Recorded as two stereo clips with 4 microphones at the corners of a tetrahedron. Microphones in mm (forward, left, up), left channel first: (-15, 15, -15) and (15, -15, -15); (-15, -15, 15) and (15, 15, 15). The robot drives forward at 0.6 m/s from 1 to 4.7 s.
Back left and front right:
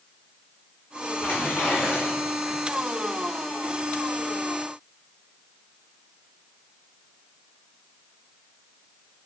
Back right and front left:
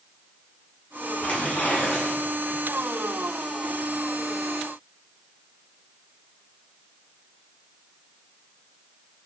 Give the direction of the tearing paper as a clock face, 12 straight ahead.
6 o'clock.